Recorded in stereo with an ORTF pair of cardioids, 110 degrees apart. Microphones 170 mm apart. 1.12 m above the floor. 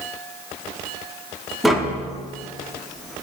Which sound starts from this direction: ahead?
Tapping, at 1.6 s.